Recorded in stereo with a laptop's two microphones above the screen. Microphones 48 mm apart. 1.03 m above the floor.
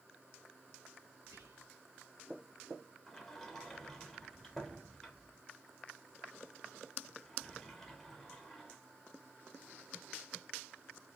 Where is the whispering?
75° right (ahead or behind), 1.4 m.